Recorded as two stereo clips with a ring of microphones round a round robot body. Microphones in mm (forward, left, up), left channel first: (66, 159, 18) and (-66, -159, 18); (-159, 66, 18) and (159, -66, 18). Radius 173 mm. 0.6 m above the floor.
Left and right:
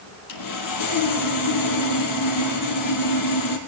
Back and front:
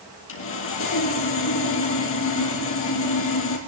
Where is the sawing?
105° left, 3.5 m.